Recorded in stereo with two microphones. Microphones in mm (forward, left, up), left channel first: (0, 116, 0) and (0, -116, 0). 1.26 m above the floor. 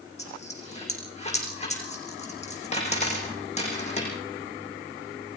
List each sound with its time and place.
0.2 s a dropped coin: 25° left (ahead or behind), 7 m